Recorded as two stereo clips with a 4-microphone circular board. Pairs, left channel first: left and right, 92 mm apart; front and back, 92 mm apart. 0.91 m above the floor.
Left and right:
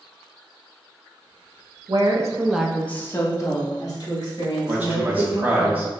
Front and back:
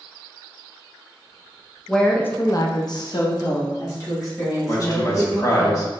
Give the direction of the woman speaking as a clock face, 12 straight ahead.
3 o'clock.